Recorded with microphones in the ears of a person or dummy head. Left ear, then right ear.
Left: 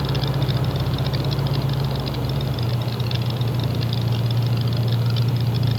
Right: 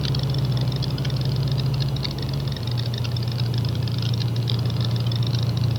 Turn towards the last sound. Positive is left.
turn(degrees=0)  # may be behind; listen again after turning